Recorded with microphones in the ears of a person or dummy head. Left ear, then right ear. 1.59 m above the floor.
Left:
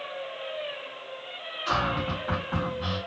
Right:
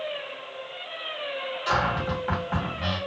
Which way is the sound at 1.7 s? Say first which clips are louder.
Right 2 dB; 10° right (ahead or behind).